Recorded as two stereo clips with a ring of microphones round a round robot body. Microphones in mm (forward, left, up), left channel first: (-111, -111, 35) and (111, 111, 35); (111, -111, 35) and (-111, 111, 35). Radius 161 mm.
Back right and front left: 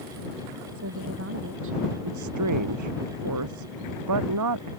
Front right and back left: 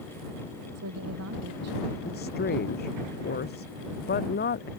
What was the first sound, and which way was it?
A woman speaking, 90° left.